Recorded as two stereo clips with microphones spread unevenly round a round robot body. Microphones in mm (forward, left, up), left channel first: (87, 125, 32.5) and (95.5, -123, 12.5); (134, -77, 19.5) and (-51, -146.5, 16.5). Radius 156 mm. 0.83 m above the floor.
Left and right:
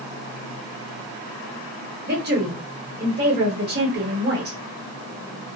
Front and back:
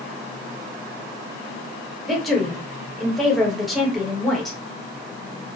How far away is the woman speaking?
About 1.2 m.